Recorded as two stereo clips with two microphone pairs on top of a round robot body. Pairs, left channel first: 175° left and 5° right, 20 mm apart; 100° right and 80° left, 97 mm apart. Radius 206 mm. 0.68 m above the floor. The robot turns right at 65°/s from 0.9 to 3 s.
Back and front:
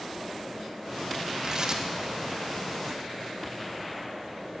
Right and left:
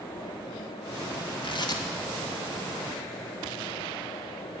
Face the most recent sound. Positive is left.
turn(degrees=30)